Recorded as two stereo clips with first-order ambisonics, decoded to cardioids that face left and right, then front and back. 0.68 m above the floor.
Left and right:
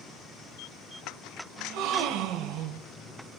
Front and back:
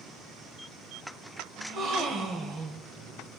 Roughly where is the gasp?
Behind right.